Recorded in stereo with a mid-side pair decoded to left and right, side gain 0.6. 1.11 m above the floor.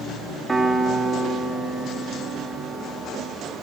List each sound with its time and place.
0.5 s a piano: 15° right, 2 m